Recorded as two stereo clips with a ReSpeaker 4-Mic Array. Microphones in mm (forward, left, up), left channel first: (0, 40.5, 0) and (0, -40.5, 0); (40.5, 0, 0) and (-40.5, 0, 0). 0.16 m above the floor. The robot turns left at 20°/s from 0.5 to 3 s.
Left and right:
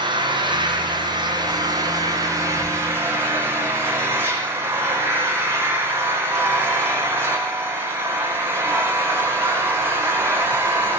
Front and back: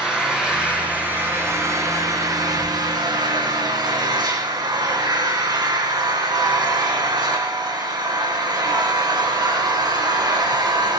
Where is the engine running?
100° right, 8 m; by 11.0 s 150° right, 8 m.